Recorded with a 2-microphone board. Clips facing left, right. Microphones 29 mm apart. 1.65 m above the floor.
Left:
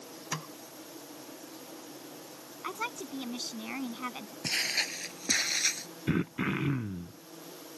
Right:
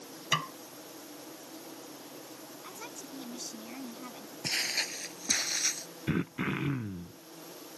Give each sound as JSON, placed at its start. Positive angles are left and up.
{"t": 0.3, "sound": "a snare drum", "side_deg": -60}
{"t": 2.6, "sound": "a woman speaking", "side_deg": 50}
{"t": 4.4, "sound": "footsteps", "side_deg": 10}
{"t": 6.1, "sound": "throat clearing", "side_deg": 5}